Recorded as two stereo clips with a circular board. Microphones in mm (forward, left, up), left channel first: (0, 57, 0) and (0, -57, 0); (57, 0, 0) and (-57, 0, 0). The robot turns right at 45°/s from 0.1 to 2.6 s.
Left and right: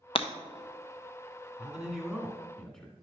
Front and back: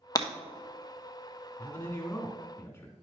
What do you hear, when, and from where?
0.1 s breaking glass: 55° left, 0.8 m; by 0.3 s 60° left, 0.8 m
1.6 s a man speaking: 25° right, 1.5 m; by 2.9 s 20° left, 1.5 m